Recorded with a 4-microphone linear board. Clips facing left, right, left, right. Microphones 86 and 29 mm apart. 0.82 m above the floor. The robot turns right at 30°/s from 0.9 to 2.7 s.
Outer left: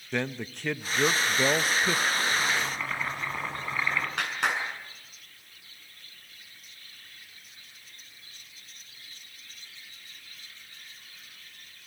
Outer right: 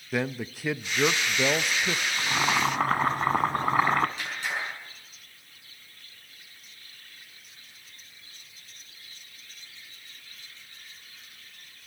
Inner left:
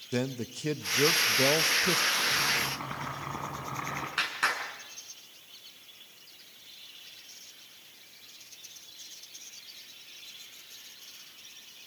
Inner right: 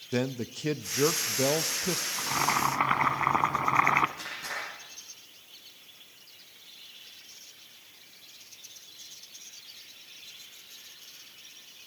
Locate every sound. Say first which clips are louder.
0.1 s a man speaking: outer right 2 dB, inner right 2 dB; 10° right (ahead or behind), 0.5 m; by 2.1 s 10° left (ahead or behind), 0.5 m
2.2 s boiling: outer right 2 dB, inner right 1 dB; 65° right (ahead or behind), 1.4 m; by 4.1 s 60° right (ahead or behind), 1.4 m
4.2 s a clap: outer left 4 dB, inner left 7 dB; 90° left, 6.5 m